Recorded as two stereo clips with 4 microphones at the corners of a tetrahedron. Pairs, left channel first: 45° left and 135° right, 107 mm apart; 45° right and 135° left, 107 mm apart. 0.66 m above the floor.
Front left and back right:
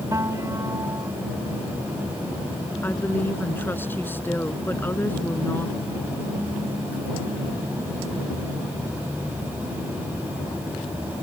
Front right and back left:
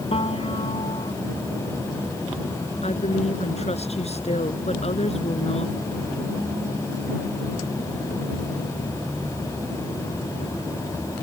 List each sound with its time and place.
0.1 s a piano: 75° right
2.8 s a woman speaking: 25° right